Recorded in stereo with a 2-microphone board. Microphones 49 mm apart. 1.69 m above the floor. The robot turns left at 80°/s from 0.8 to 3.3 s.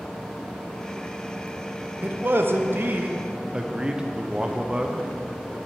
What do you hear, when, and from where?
2.0 s a man speaking: 50° right, 0.6 m; by 5.1 s 155° right, 0.6 m